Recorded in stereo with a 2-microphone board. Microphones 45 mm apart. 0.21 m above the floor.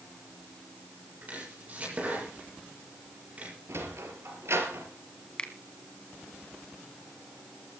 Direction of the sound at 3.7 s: 70° right (ahead or behind).